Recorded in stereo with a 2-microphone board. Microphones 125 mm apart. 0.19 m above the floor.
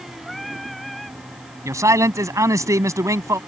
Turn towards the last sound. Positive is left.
turn(degrees=-25)  # may be behind; listen again after turning